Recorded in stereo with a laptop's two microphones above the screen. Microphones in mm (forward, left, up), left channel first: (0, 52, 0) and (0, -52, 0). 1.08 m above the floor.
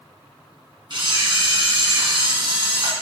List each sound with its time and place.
0.9 s a camera shutter: 50° right (ahead or behind), 1.9 m